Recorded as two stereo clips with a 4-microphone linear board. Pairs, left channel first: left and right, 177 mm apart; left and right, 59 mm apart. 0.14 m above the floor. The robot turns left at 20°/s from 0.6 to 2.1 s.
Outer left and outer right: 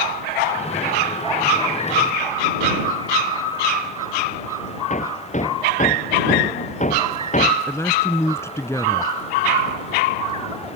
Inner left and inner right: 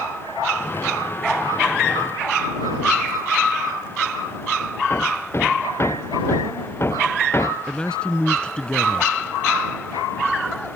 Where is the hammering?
45° left (ahead or behind).